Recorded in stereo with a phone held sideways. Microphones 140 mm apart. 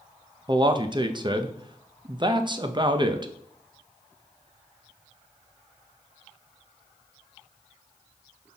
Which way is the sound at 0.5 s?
35° right (ahead or behind).